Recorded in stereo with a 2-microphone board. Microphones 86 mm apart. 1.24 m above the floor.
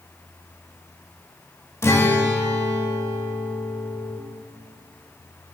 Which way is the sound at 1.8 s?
30° left (ahead or behind).